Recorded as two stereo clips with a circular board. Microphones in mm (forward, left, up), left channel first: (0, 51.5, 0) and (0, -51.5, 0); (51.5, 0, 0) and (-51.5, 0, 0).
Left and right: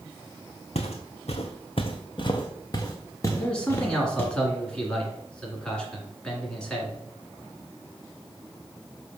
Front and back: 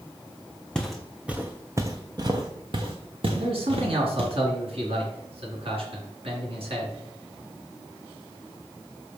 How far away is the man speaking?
About 2.5 m.